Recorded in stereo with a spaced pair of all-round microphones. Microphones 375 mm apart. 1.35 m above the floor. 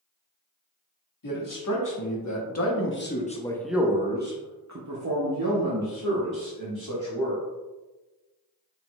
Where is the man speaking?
60° left (ahead or behind), 1.5 m; by 7.4 s 80° right, 2 m.